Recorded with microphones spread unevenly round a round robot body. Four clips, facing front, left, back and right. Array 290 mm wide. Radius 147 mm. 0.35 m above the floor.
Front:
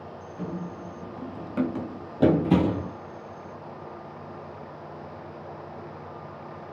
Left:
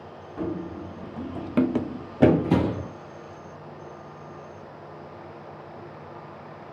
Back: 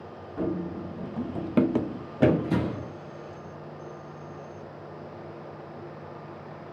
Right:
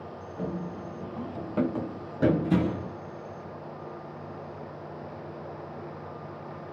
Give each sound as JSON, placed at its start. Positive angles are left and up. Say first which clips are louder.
{"t": 0.4, "sound": "running footsteps", "louder": "left 4 dB, back 6 dB", "azimuth_deg": 155, "distance_m": 1.2}